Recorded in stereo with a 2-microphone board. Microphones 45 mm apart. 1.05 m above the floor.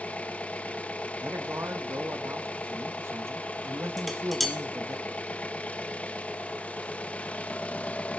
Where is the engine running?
30° left (ahead or behind), 0.8 m.